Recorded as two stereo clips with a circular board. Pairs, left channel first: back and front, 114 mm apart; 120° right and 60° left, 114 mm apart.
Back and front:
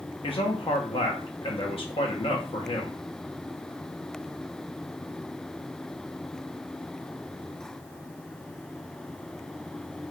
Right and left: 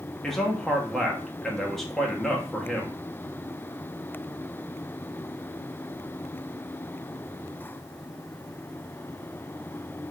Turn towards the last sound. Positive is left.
turn(degrees=155)